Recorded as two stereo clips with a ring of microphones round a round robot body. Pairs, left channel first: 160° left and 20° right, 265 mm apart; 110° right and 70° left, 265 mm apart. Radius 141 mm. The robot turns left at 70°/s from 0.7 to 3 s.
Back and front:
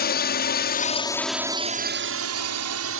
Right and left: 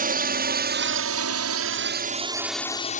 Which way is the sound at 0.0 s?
115° left.